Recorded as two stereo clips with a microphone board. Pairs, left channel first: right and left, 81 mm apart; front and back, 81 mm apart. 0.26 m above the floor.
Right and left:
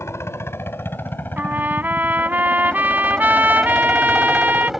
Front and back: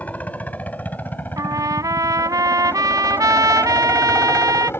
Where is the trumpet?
155° left.